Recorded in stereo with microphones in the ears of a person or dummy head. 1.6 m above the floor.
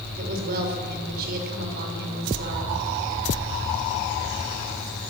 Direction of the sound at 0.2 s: 50° right (ahead or behind).